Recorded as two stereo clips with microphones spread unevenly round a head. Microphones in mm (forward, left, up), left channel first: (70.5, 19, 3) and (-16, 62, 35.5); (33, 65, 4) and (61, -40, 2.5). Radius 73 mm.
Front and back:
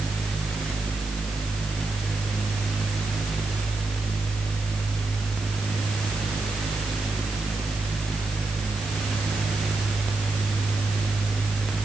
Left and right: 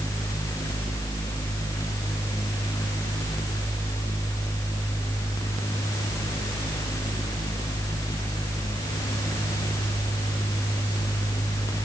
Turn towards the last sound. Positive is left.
No sound to turn to.